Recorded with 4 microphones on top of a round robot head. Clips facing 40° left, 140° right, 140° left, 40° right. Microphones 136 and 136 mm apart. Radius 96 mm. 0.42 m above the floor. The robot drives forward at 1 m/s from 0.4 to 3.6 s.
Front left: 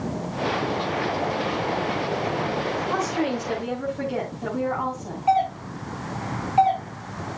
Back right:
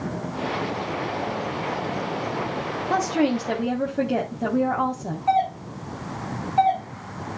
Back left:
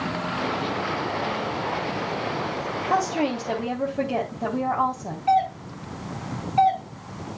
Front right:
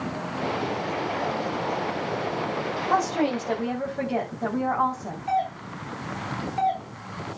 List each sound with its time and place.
2.9 s a woman speaking: 135° right, 2.5 m; by 5.2 s 145° right, 3 m
5.3 s a doorbell: 120° left, 7 m